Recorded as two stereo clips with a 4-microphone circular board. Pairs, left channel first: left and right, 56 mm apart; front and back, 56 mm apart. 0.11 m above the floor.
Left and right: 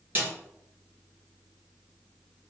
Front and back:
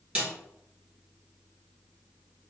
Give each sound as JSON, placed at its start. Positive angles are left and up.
{"t": 0.1, "sound": "a snare drum", "azimuth_deg": -125, "distance_m": 1.9}